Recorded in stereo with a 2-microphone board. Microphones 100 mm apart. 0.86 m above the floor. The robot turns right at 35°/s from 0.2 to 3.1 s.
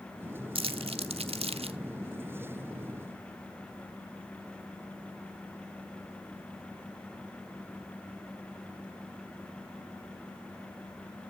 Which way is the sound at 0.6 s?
65° right (ahead or behind).